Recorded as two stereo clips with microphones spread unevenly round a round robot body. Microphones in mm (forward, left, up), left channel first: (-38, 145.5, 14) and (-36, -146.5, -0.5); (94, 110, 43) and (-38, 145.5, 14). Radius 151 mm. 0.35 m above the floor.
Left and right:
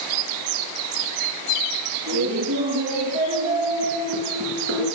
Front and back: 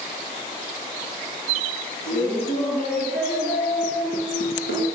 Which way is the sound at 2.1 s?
50° right.